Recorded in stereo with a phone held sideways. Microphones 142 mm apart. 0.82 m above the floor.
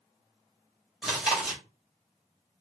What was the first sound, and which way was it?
Chewing, 5° right (ahead or behind).